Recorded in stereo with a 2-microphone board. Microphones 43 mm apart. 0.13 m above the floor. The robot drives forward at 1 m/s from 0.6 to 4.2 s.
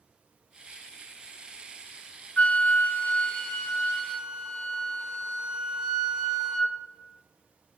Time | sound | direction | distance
2.4 | a flute | 40° left (ahead or behind) | 0.7 m